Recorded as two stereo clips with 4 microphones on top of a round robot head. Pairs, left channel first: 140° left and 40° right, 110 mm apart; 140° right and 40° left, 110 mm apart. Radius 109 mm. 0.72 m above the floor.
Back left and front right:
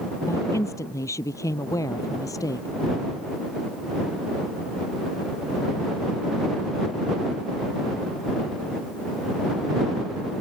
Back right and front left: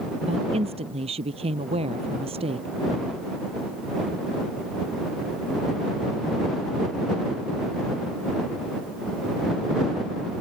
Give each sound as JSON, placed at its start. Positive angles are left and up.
{"t": 0.2, "sound": "a woman speaking", "azimuth_deg": 75}